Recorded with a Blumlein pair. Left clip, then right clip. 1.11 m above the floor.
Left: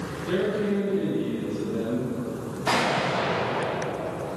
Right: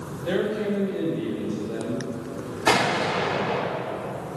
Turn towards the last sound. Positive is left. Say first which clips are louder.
# right 2 dB
turn(degrees=-70)